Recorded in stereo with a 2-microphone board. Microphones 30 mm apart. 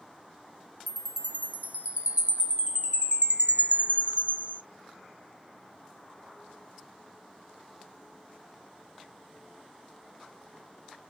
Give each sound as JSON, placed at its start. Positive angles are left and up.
{"t": 0.9, "sound": "a chime", "side_deg": -65, "distance_m": 0.9}